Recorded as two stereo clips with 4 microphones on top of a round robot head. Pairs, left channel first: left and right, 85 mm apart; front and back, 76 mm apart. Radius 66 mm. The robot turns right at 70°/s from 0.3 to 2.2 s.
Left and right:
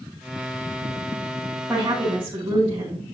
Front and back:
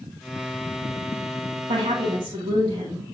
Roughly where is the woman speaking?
Behind.